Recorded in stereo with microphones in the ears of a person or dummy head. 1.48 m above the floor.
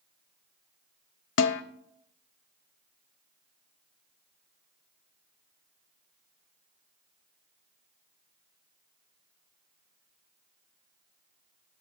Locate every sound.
1.4 s a snare drum: 65° left (ahead or behind), 0.6 m